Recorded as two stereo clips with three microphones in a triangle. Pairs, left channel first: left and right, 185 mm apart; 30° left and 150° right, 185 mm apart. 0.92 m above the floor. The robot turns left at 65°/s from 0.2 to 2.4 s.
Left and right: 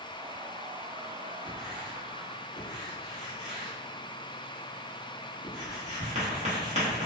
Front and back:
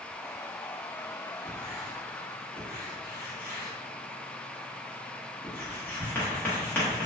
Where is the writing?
15° left, 1.1 m; by 7.1 s 50° right, 1.1 m.